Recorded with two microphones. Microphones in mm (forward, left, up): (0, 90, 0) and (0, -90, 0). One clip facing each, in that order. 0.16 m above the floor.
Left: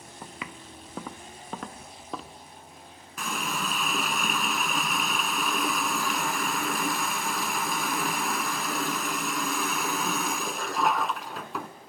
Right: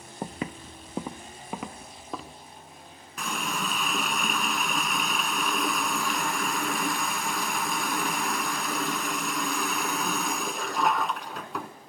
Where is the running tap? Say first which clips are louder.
Even; centre (ahead or behind), 1.1 m.